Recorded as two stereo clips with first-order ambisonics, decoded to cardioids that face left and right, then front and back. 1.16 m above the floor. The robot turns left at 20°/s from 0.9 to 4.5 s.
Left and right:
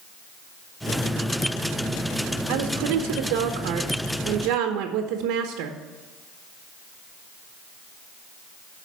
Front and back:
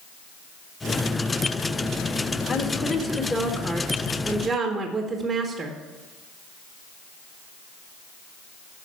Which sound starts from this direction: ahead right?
A woman speaking, at 2.5 s.